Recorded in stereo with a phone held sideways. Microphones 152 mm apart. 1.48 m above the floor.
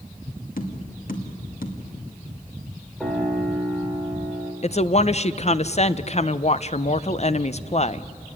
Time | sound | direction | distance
0.6 | tapping | 75° left (ahead or behind) | 2.5 m
3.0 | a piano | 5° left (ahead or behind) | 4 m
4.6 | a woman speaking | 50° left (ahead or behind) | 0.6 m